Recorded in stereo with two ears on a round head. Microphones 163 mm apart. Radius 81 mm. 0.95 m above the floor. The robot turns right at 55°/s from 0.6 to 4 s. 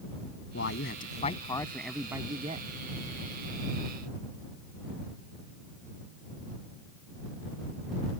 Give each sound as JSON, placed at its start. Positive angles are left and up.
{"t": 0.5, "sound": "a man speaking", "azimuth_deg": 110}